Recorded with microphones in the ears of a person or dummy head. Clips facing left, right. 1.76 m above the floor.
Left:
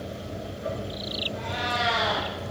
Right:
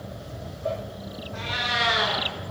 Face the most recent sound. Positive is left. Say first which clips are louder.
# left 1 dB
turn(degrees=-80)